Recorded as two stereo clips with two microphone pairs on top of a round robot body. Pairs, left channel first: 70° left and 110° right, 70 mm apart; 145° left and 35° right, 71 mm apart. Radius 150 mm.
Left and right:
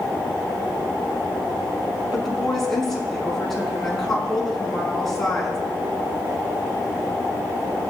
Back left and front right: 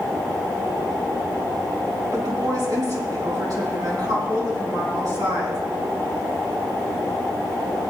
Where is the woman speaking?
20° right, 6 m.